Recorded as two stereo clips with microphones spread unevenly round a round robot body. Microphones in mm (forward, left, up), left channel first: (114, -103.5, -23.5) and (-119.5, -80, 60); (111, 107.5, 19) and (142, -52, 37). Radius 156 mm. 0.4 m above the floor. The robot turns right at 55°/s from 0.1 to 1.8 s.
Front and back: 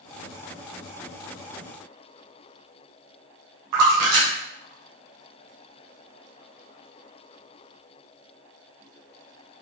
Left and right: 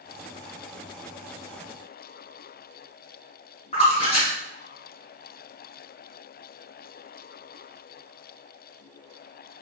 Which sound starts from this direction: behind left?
A splash, at 3.7 s.